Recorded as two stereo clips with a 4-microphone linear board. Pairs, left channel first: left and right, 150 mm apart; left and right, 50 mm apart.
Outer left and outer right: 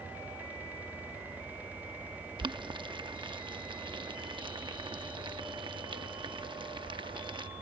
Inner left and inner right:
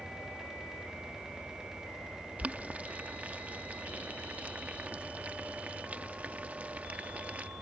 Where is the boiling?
30° right (ahead or behind).